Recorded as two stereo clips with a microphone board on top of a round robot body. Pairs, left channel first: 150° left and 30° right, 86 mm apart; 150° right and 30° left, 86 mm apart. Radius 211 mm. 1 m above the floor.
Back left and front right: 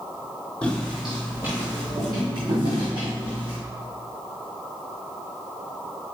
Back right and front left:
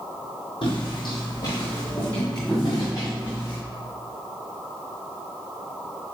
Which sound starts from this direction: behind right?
Footsteps, at 0.6 s.